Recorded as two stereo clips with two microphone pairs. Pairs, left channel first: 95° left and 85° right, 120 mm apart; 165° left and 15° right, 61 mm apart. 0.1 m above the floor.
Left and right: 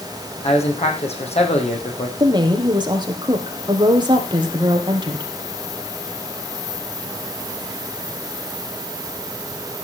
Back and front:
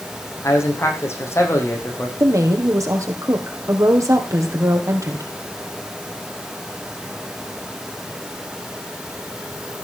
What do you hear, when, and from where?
0.4 s a man speaking: 120° left, 5 m
2.2 s a woman speaking: 35° right, 3.5 m